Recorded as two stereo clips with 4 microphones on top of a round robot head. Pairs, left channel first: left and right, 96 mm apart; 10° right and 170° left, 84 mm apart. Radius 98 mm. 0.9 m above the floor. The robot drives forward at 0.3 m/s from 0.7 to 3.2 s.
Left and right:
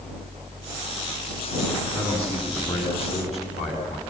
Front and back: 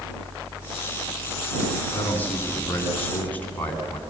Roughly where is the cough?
I don't hear a cough.